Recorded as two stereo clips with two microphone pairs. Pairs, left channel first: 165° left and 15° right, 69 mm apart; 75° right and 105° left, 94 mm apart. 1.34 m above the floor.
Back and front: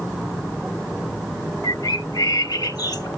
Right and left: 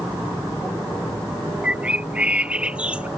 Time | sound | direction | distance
1.6 | a bird | 175° right | ?